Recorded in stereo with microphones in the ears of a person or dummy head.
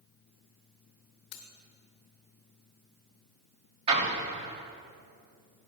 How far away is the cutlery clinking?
About 0.9 m.